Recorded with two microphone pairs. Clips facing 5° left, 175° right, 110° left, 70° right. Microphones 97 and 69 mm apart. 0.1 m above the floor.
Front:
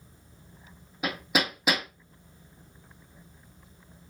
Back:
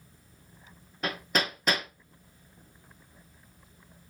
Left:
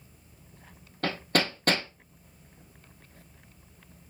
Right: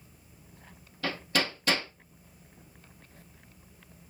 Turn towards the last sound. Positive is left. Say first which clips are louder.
# front 2 dB, left 3 dB
turn(degrees=85)